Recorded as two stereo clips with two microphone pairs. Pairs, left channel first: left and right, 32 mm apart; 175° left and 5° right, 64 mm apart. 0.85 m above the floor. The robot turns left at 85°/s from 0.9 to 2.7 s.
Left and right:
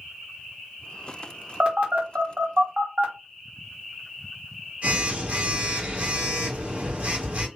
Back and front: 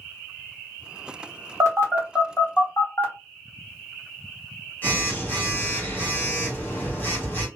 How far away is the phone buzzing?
About 1.0 m.